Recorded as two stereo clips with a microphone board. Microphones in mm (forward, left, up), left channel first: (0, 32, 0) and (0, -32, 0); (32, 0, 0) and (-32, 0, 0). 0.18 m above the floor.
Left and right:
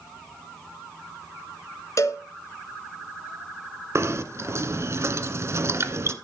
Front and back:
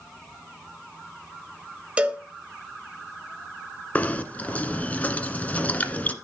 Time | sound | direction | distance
2.0 | a cowbell | 115° left | 1.7 m
4.0 | knocking | 60° right | 1.5 m